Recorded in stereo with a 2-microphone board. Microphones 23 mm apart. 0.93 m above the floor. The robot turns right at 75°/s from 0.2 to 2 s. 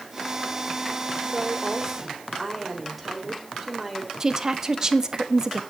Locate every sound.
1.2 s a woman speaking: 60° right, 3.5 m; by 4.1 s straight ahead, 3.5 m
4.2 s a woman speaking: 25° right (ahead or behind), 1.4 m